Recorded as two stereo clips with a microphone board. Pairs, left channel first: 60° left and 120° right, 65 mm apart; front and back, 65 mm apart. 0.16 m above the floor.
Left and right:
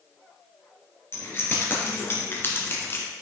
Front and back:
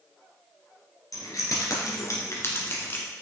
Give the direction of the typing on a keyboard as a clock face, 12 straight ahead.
No typing on a keyboard in this recording.